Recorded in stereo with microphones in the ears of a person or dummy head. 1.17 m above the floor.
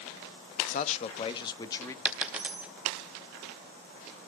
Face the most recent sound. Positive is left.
turn(degrees=-5)  # may be behind; listen again after turning